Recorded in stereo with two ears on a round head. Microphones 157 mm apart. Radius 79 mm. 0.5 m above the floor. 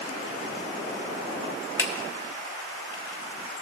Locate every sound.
1.8 s a finger snap: 15° left (ahead or behind), 1.3 m